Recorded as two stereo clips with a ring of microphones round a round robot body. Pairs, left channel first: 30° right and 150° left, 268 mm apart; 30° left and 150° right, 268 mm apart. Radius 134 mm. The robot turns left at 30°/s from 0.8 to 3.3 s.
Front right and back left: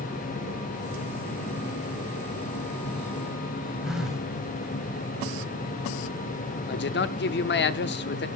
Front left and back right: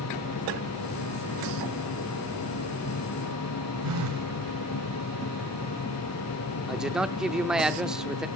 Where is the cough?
I don't hear a cough.